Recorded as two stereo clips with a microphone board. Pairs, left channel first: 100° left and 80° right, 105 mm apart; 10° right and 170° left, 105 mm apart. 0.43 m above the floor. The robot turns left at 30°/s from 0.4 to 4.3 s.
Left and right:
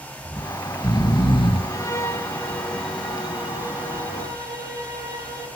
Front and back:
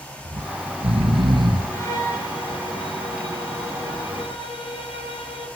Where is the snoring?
155° left, 2.5 m; by 1.6 s 120° left, 2.5 m.